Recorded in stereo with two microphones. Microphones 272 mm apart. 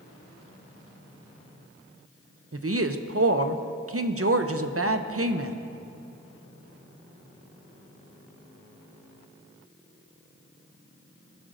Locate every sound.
2.5 s a woman speaking: 55° right (ahead or behind), 0.6 m